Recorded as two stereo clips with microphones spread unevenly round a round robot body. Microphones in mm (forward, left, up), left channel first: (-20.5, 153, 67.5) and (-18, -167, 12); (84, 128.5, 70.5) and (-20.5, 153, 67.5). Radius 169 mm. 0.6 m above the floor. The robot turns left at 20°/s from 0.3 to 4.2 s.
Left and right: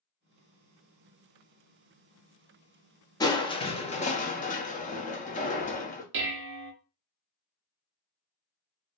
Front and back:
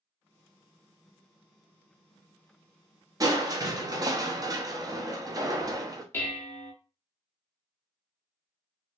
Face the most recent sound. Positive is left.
turn(degrees=-75)